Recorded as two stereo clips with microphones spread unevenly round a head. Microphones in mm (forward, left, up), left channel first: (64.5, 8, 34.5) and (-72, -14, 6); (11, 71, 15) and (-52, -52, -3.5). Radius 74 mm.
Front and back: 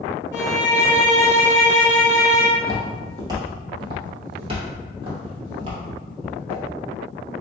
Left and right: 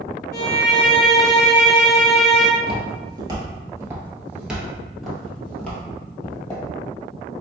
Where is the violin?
85° left, 1.1 m.